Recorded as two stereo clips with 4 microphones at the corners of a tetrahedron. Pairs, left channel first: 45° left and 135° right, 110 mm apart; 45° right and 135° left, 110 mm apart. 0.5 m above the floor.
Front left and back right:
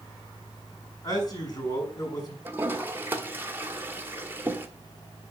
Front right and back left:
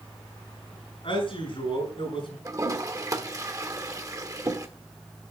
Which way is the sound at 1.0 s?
10° right.